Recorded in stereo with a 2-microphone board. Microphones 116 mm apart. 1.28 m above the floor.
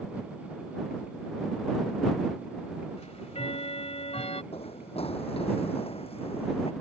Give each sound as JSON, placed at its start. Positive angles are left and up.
{"t": 3.0, "sound": "ticking", "side_deg": 65}
{"t": 4.5, "sound": "running footsteps", "side_deg": 60}